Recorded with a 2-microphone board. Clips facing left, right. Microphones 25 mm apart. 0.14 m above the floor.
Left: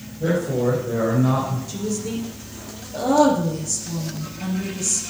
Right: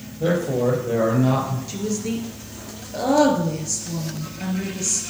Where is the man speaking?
45° right (ahead or behind), 4.5 m; by 1.6 s 40° right (ahead or behind), 3 m.